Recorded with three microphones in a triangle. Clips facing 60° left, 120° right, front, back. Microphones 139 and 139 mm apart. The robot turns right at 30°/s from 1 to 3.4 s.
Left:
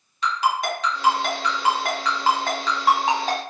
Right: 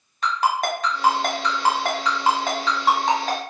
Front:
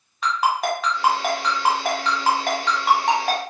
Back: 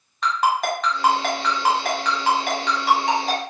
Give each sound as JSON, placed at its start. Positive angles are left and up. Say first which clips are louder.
{"t": 0.2, "sound": "a ringtone", "louder": "right 1 dB, back 1 dB", "azimuth_deg": -85, "distance_m": 1.2}